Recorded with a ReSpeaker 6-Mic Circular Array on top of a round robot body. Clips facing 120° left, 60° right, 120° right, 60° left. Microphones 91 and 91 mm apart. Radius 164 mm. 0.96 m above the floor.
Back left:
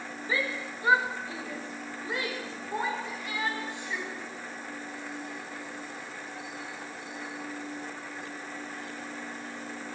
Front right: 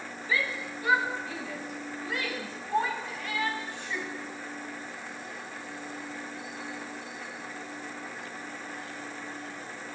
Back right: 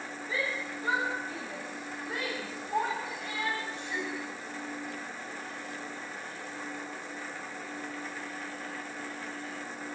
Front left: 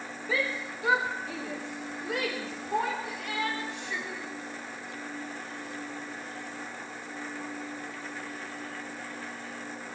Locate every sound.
0.3 s a shout: 60° left, 4.5 m; by 4.1 s 45° left, 6.5 m